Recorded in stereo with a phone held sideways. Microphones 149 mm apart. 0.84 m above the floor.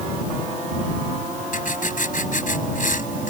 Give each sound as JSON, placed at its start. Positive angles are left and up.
{"t": 1.5, "sound": "writing", "side_deg": 60}